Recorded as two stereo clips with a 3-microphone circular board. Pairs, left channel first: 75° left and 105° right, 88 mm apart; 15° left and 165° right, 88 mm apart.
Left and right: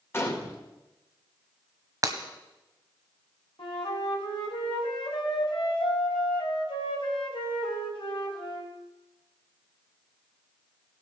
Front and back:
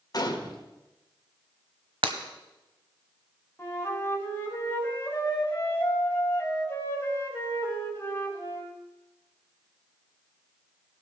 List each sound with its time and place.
0.1 s a gunshot: 25° left, 1.5 m
2.0 s breaking glass: 155° right, 1.1 m
3.6 s a flute: 80° left, 2.5 m